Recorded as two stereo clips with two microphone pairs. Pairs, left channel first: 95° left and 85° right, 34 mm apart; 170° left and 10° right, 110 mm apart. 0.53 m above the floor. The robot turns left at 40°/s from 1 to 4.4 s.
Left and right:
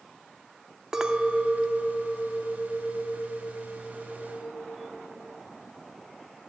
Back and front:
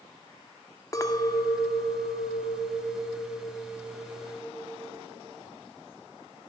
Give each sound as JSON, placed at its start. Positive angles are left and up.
{"t": 0.9, "sound": "a clink", "azimuth_deg": -150, "distance_m": 0.5}